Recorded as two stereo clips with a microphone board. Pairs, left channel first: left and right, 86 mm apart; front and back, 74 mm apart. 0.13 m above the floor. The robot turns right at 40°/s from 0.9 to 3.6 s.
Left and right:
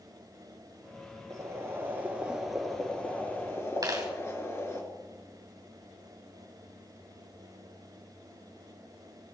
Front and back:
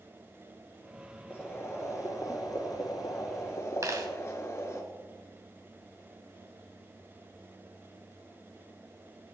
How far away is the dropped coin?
About 3.5 m.